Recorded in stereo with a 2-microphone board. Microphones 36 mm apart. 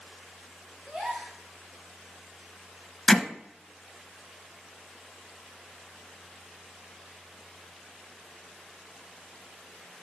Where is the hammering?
10° left (ahead or behind), 0.7 m.